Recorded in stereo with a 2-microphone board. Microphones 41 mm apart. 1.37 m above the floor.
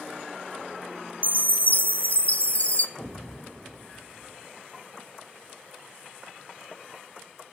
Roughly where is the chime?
Left.